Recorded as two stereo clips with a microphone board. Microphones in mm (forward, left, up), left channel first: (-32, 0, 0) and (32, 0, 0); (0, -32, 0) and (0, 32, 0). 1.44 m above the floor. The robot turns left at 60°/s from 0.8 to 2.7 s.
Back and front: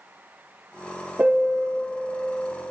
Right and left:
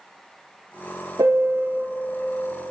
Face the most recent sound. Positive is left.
turn(degrees=-25)